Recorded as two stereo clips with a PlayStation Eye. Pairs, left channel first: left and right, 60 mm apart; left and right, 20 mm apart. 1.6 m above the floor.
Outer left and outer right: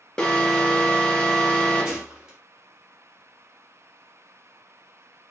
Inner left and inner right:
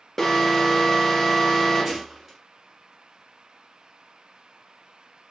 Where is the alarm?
15° left (ahead or behind), 1.0 m.